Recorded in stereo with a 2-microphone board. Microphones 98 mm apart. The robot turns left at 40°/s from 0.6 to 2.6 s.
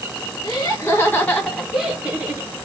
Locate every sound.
0.4 s laughter: 40° left, 1.6 m; by 2.5 s 35° right, 1.6 m